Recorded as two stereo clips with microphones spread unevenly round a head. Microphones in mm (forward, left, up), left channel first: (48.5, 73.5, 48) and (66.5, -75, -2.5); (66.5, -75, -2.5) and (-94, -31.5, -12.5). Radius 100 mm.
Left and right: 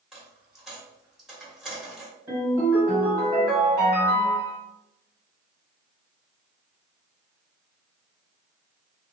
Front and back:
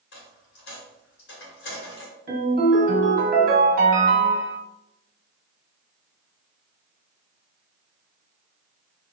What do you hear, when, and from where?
0.1 s a dropped coin: 10° left, 1.3 m
2.3 s a ringtone: 165° right, 1.2 m